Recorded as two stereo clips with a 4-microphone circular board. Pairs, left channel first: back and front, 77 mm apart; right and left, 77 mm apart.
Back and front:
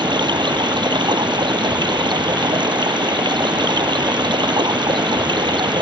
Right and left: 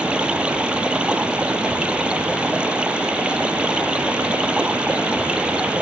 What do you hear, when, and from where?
0.0 s running water: 15° left